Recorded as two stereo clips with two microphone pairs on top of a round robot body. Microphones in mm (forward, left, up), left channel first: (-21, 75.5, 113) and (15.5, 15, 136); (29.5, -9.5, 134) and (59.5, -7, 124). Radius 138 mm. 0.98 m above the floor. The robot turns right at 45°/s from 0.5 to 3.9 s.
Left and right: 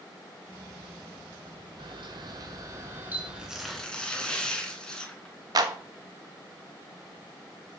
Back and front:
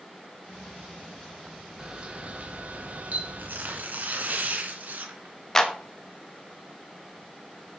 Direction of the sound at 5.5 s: 100° right.